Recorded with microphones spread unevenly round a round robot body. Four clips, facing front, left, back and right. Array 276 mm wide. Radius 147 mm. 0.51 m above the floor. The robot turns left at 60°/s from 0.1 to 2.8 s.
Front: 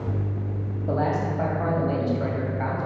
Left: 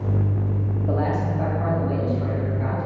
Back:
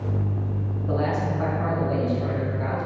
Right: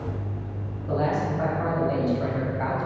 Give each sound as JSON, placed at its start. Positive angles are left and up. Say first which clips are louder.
{"t": 0.9, "sound": "a man speaking", "louder": "right 1 dB, front 1 dB", "azimuth_deg": 40, "distance_m": 3.0}